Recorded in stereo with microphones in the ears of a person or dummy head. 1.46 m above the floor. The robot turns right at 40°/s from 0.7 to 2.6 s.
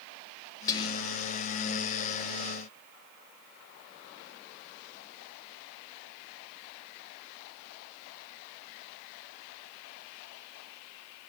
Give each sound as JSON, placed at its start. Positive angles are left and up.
{"t": 0.7, "sound": "whispering", "side_deg": 20, "distance_m": 0.7}